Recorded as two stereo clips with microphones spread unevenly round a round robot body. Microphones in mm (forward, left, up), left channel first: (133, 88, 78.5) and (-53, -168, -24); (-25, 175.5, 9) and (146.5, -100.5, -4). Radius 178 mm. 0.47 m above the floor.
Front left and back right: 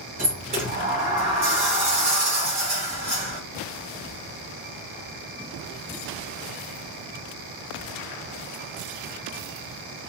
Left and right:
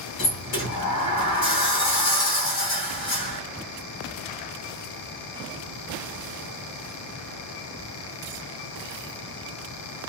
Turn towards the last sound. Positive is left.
turn(degrees=170)